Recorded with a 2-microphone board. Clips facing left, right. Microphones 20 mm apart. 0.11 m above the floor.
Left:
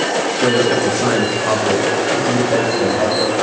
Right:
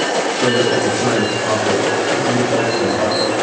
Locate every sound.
0.4 s a man speaking: 80° left, 8 m